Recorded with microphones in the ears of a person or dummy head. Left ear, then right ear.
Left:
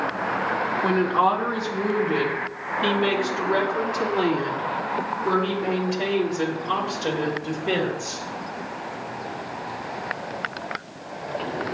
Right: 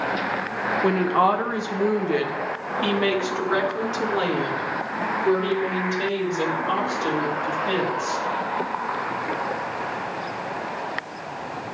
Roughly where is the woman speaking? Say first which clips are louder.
Right 1 dB; centre.